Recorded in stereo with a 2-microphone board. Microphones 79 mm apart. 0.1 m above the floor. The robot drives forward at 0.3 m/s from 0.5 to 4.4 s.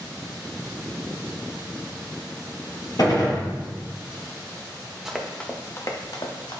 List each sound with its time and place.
3.0 s a gunshot: 55° left (ahead or behind), 1.4 m
5.0 s running footsteps: 10° right (ahead or behind), 1.1 m; by 6.6 s 75° left (ahead or behind), 1.5 m